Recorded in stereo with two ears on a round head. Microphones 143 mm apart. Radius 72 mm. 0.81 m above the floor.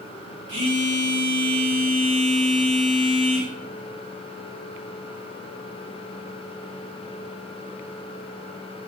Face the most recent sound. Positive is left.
turn(degrees=-80)